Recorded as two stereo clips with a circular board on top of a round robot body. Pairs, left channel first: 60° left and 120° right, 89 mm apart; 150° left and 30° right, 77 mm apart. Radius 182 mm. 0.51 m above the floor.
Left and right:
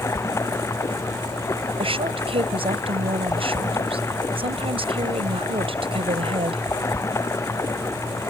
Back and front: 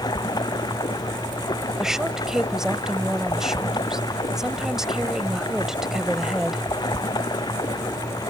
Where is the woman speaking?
115° right.